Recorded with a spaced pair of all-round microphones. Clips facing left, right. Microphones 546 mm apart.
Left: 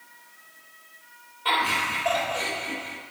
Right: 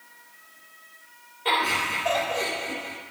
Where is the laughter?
30° left (ahead or behind), 3.5 m.